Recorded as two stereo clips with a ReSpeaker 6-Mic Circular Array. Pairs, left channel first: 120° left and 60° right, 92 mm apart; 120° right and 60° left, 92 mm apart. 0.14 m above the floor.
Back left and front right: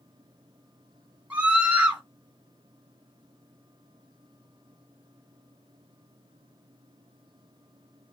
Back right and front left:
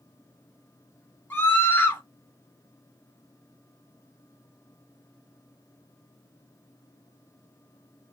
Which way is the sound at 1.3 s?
110° right.